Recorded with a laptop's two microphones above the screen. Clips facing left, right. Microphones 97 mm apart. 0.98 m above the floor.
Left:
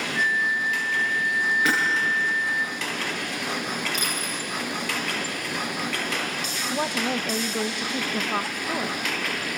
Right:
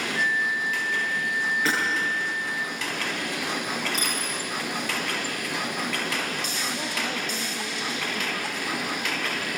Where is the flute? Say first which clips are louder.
Left 2 dB; 20° right (ahead or behind), 0.8 m.